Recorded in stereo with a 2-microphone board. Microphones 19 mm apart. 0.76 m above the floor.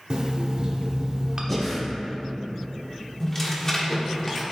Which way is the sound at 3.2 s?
15° left (ahead or behind).